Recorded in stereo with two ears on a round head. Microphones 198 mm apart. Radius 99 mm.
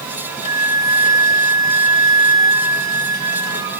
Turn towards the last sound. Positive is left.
turn(degrees=-15)  # may be behind; listen again after turning